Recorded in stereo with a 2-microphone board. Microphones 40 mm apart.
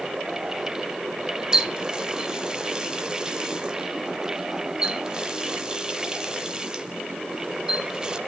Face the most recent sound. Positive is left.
turn(degrees=-20)  # may be behind; listen again after turning